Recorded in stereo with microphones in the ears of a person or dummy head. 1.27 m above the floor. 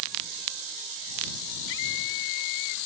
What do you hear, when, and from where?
1.7 s a scream: 75° left (ahead or behind); by 2.8 s 70° left (ahead or behind)